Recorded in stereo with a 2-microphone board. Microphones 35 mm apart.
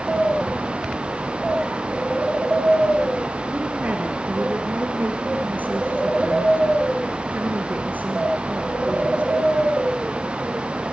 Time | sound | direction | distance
3.5 | a woman speaking | 65° right (ahead or behind) | 3 m